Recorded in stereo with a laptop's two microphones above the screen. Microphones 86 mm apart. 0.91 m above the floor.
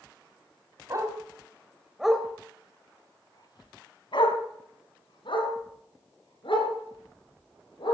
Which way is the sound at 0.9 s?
40° right (ahead or behind).